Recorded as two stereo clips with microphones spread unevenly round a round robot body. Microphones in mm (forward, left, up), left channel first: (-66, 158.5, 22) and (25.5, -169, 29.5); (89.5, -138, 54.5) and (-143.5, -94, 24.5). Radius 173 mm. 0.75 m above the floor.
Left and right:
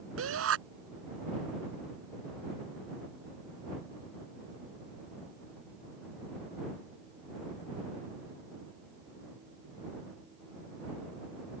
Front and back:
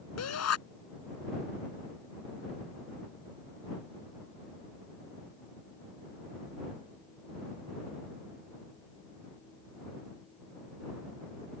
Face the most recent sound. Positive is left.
turn(degrees=-20)